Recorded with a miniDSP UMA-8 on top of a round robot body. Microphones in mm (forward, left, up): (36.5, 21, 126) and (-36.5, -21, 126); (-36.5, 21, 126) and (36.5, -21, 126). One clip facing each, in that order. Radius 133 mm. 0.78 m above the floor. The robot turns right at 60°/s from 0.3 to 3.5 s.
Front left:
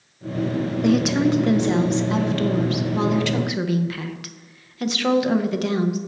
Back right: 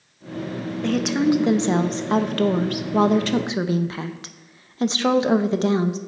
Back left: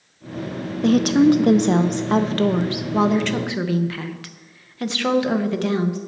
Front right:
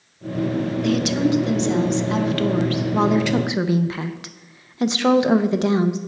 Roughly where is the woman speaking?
Left.